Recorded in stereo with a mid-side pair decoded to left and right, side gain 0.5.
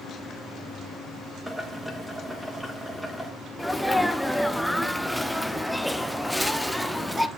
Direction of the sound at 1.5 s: 5° right.